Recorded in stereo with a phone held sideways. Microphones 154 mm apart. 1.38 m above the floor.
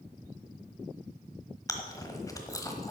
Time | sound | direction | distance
1.7 | chewing | 20° left (ahead or behind) | 1.3 m